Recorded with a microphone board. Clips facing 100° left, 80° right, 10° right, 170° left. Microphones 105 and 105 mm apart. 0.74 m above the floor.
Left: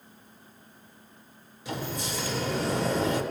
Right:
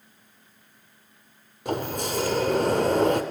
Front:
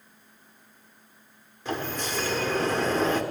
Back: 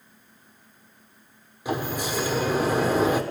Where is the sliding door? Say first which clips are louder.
Right 6 dB, back 3 dB; 110° right, 1.4 m.